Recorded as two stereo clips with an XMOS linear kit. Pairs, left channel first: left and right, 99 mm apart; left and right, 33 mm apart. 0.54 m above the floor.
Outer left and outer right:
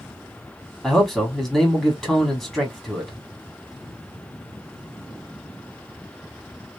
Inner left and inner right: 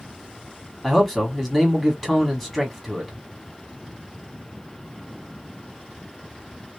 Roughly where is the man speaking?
Centre.